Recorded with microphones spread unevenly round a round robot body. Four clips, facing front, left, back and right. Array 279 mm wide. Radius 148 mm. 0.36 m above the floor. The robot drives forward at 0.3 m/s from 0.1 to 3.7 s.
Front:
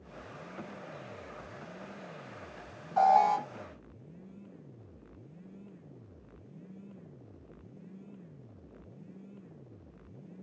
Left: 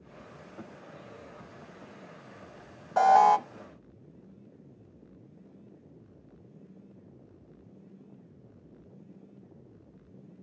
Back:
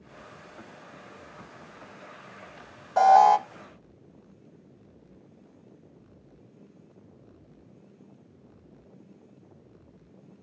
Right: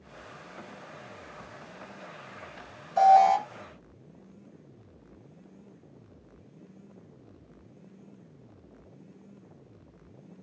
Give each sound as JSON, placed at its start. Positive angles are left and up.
{"t": 3.0, "sound": "an alarm", "azimuth_deg": 110, "distance_m": 0.9}